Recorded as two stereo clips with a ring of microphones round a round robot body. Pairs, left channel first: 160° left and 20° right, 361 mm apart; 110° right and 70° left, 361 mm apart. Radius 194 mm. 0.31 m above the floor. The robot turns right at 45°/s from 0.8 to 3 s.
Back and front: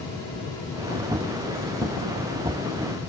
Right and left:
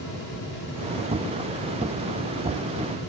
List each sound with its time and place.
Only background noise.